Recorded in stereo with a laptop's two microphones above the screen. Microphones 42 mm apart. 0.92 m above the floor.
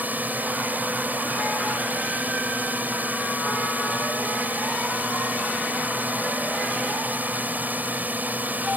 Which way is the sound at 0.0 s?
45° right (ahead or behind).